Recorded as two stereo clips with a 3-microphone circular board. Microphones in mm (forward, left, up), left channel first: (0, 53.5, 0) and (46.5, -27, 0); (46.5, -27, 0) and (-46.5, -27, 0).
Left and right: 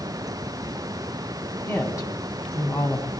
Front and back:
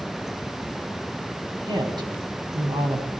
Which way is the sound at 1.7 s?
165° left.